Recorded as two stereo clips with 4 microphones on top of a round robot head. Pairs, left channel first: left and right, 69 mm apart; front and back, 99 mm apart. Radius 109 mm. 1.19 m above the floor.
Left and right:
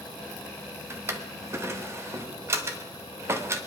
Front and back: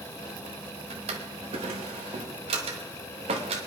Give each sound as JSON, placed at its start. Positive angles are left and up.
{"t": 0.9, "sound": "a drawer", "azimuth_deg": -145, "distance_m": 1.0}